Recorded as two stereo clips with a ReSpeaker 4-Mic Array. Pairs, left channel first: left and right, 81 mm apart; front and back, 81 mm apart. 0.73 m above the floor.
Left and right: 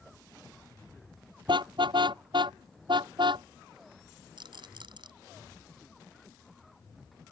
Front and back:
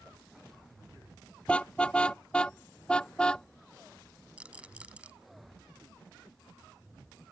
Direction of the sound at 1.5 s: 75° right.